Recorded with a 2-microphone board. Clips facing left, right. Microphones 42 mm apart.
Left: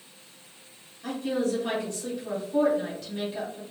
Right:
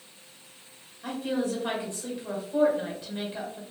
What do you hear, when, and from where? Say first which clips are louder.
1.0 s a woman speaking: left 1 dB; 20° right (ahead or behind), 1.1 m